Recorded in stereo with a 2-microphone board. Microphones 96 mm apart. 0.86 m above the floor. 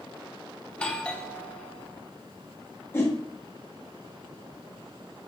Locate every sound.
0.7 s a doorbell: 10° left (ahead or behind), 0.7 m
2.9 s a whoosh: 25° left (ahead or behind), 1.4 m